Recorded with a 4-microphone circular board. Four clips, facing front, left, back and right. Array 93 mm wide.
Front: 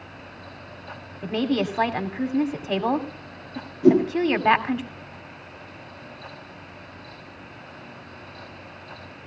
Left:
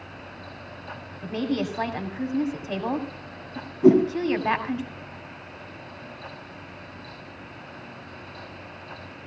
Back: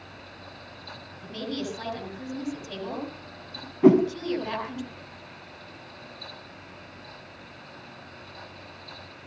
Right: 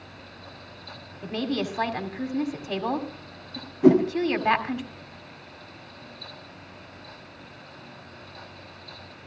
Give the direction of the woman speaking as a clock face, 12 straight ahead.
12 o'clock.